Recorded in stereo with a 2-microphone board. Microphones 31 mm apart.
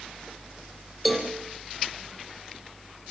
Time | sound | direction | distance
1.1 | a cowbell | centre (ahead or behind) | 5 m